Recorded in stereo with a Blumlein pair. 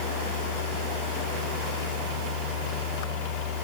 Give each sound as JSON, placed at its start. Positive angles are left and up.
{"t": 0.0, "sound": "a fan", "azimuth_deg": 40, "distance_m": 3.5}